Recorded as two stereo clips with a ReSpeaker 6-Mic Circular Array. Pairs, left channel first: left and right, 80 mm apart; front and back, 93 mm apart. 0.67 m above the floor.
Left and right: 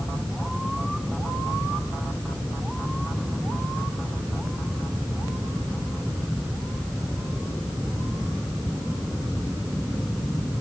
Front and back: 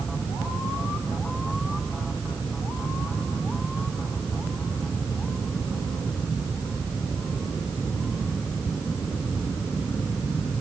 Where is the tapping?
I don't hear tapping.